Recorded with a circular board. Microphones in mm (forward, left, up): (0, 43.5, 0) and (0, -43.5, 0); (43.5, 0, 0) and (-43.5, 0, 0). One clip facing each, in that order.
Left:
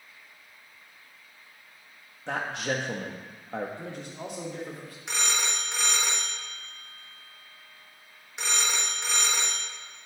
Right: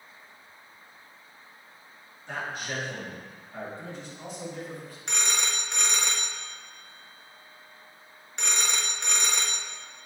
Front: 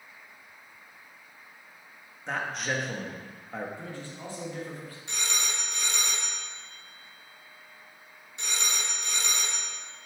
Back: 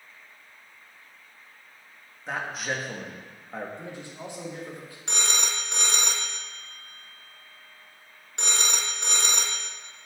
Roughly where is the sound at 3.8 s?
Left.